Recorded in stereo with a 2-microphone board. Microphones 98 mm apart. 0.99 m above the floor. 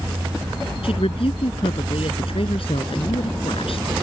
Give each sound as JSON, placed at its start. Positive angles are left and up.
{"t": 0.8, "sound": "a woman speaking", "side_deg": 70}